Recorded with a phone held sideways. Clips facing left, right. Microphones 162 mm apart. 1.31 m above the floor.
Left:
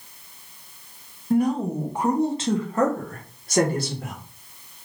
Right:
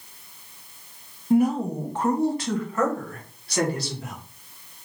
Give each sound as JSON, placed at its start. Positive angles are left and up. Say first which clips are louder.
{"t": 1.3, "sound": "a woman speaking", "louder": "right 1 dB", "side_deg": -10, "distance_m": 1.1}